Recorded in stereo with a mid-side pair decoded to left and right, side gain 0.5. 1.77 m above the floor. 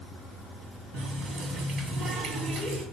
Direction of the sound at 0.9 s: 65° right.